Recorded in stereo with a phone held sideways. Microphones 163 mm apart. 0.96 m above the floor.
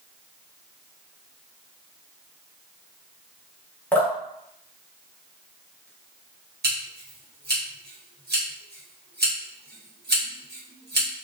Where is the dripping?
10° left (ahead or behind), 0.9 m.